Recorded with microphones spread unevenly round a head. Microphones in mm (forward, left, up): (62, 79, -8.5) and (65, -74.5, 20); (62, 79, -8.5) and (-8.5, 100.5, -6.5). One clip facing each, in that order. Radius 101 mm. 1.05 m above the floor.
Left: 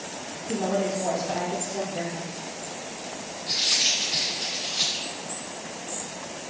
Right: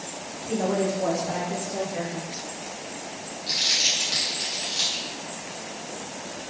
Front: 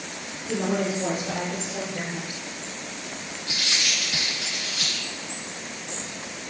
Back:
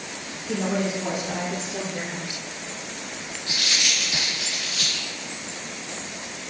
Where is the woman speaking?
90° right, 2.0 m; by 2.3 s 155° right, 0.9 m.